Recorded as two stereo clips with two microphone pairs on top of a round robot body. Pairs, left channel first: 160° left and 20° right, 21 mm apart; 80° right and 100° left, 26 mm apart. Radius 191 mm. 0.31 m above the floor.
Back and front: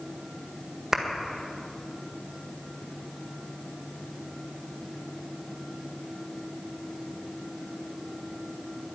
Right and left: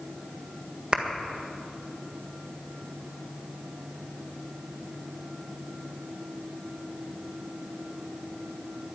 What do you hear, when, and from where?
0.9 s a clap: 55° left, 1.8 m